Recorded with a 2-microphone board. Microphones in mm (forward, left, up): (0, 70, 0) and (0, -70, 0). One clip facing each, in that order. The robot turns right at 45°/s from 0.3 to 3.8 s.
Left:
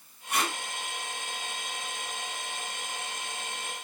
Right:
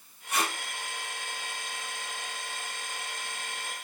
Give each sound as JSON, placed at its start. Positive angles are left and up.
{"t": 0.3, "sound": "tape being pulled", "side_deg": 60, "distance_m": 2.5}